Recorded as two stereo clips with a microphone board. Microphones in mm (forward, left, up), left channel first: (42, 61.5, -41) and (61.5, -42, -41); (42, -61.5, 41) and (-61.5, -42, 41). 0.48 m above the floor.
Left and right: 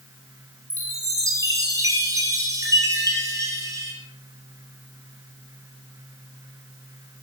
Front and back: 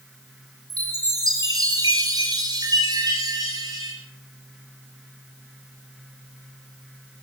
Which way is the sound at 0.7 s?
140° right.